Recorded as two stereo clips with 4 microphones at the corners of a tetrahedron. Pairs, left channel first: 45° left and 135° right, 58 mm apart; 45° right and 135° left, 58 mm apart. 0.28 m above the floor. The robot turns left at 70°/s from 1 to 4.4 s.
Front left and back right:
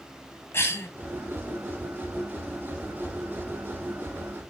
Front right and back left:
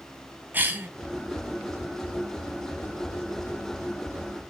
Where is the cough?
80° left, 1.9 m.